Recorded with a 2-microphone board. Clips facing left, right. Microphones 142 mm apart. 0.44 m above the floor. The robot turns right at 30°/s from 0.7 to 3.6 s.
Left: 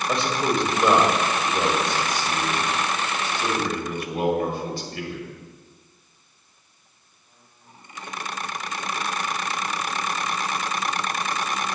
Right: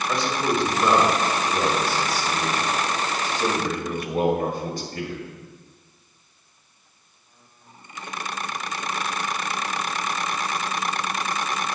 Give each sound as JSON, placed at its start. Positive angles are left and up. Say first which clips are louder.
{"t": 0.1, "sound": "a man speaking", "louder": "left 1 dB", "azimuth_deg": 150, "distance_m": 2.0}